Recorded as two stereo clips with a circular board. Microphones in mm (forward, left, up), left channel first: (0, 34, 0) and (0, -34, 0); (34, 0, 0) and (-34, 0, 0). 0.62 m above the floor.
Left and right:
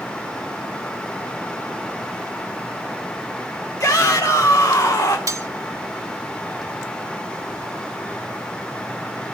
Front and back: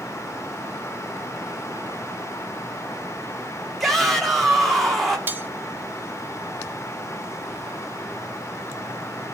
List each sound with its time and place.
3.8 s a shout: 85° left, 1.0 m
5.3 s cutlery clinking: 120° right, 0.8 m